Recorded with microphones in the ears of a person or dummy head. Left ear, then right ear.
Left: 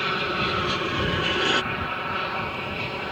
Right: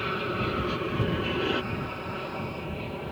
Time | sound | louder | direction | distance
0.0 | an aircraft | left 5 dB | 30° left (ahead or behind) | ?